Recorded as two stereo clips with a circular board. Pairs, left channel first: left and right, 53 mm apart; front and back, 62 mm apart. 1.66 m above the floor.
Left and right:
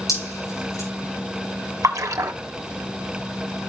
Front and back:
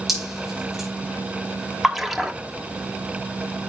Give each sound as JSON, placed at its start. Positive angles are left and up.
{"t": 0.1, "sound": "dripping", "azimuth_deg": 90, "distance_m": 9.0}
{"t": 1.8, "sound": "a splash", "azimuth_deg": -90, "distance_m": 1.0}